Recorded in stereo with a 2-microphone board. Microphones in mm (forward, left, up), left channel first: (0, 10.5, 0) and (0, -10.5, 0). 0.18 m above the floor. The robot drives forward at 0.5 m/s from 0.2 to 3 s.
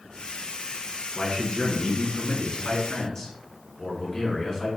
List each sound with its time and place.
1.1 s a man speaking: 45° left (ahead or behind), 1.7 m; by 4.7 s 35° left (ahead or behind), 2.0 m